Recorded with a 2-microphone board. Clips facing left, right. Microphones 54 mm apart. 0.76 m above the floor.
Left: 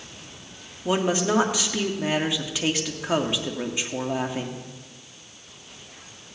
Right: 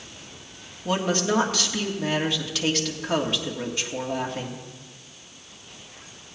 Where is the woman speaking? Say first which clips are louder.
Left 1 dB; 15° left (ahead or behind), 1.7 m.